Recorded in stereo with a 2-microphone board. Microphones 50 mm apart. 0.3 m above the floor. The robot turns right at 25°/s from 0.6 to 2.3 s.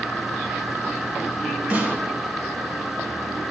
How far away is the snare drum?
About 2 m.